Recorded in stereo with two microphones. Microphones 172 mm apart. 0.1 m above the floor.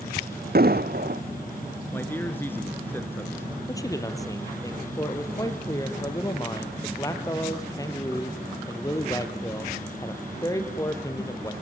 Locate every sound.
0.6 s an explosion: 65° right (ahead or behind), 1.0 m
1.9 s a man speaking: 10° left (ahead or behind), 1.4 m
3.7 s a man speaking: 20° left (ahead or behind), 2.5 m